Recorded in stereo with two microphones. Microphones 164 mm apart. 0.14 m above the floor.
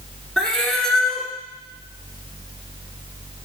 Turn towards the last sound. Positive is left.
turn(degrees=5)  # may be behind; listen again after turning